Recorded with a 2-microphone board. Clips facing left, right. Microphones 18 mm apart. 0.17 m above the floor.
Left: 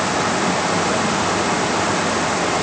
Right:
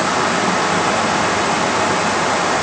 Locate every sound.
Only background noise.